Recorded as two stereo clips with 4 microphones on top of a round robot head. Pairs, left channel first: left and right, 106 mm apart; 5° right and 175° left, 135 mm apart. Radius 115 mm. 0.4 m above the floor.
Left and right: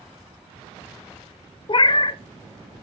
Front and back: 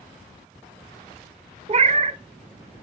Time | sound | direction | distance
1.7 | a cat meowing | 130° left | 0.6 m